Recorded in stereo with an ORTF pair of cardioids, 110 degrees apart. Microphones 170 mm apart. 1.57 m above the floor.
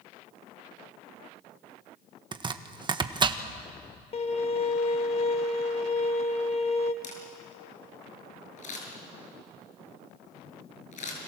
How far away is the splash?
I don't hear a splash.